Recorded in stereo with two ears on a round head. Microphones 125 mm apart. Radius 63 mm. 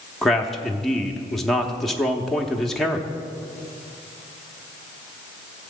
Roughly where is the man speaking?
Centre.